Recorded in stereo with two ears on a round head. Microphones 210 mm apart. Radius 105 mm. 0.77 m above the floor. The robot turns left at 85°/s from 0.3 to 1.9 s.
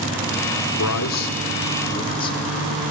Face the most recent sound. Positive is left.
turn(degrees=20)